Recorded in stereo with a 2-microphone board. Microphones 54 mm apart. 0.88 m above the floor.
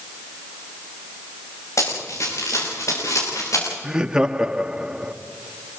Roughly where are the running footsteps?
Left.